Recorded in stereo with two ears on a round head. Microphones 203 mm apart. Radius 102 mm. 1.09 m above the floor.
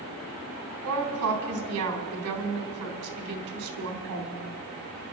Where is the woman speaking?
75° right (ahead or behind), 3.5 m.